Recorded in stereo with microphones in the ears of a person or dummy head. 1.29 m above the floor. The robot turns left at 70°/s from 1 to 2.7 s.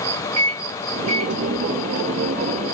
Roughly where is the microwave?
Right.